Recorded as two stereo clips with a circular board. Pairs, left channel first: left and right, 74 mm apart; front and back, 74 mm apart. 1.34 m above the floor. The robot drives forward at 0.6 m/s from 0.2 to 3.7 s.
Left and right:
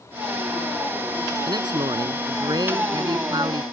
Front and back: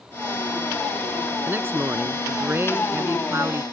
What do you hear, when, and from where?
1.5 s a man speaking: 120° right